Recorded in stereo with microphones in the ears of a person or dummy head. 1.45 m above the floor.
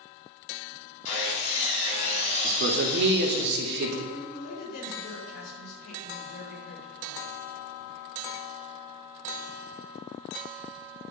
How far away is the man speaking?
About 3 m.